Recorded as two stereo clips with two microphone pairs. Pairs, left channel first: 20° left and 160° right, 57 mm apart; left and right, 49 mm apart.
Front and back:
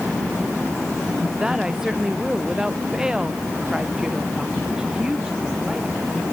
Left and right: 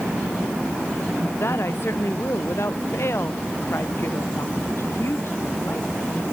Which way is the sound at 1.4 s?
120° left.